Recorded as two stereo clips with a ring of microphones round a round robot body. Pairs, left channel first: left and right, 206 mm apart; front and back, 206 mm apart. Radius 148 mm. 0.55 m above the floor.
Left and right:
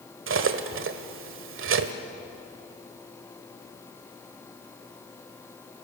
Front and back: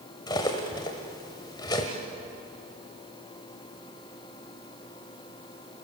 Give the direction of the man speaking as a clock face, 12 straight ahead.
No man speaking in this recording.